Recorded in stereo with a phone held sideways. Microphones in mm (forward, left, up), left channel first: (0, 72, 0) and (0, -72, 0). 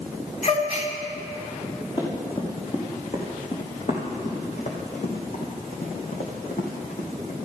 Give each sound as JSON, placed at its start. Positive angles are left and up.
{"t": 0.4, "sound": "a gasp", "side_deg": 55, "distance_m": 1.6}
{"t": 2.0, "sound": "running footsteps", "side_deg": 40, "distance_m": 4.5}